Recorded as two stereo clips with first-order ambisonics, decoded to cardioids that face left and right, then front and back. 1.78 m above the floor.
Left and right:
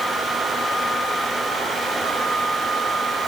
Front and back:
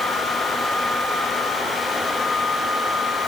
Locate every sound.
Only background noise.